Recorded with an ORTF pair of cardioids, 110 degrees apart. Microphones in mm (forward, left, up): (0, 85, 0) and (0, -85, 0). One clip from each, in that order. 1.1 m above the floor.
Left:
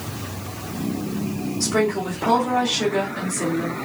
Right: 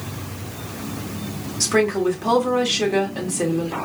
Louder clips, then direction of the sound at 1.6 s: Right 3 dB; 65° right.